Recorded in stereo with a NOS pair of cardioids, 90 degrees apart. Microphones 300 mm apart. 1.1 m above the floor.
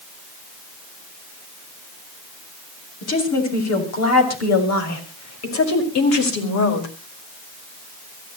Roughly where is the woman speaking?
Ahead left.